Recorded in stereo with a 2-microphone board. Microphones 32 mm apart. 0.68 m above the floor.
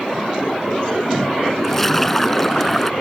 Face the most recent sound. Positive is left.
turn(degrees=5)  # may be behind; listen again after turning